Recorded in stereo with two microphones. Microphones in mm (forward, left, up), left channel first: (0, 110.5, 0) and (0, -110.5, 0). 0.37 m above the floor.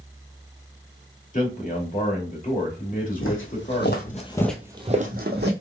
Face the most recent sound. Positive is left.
turn(degrees=-50)  # may be behind; listen again after turning